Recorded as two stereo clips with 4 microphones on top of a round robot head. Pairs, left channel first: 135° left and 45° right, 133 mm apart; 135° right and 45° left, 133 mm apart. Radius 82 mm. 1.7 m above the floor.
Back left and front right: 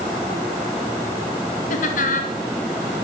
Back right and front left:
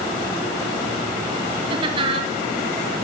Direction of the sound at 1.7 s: 100° left.